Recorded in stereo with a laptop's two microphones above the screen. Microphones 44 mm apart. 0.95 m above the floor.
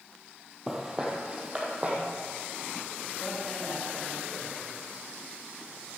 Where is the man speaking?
20° left (ahead or behind), 4.5 m.